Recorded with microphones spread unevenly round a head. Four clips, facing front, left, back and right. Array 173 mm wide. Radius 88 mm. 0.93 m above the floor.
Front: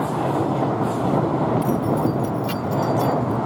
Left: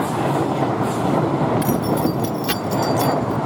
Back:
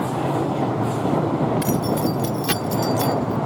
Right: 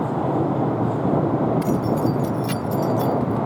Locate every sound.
1.6 s keys jangling: 150° left; by 3.4 s 115° left